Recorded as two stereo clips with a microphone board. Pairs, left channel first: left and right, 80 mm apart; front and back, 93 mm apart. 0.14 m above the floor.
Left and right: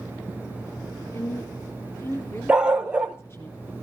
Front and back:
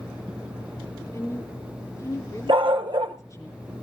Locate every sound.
1.1 s a woman speaking: 45° left, 1.9 m
2.5 s a dog barking: 170° right, 1.1 m